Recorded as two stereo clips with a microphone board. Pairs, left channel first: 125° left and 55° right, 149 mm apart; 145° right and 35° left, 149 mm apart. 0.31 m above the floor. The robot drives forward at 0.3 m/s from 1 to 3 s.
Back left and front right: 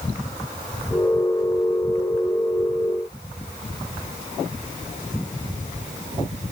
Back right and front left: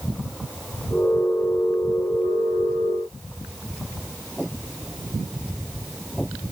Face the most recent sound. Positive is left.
No sound to turn to.